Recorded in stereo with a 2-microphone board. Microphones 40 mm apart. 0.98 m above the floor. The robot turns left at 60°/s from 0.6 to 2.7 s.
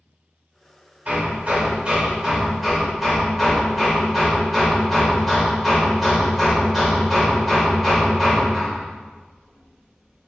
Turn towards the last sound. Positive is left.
turn(degrees=-175)